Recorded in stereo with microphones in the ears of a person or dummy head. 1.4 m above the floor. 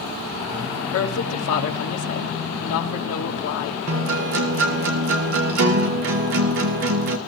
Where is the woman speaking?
80° left, 1.8 m.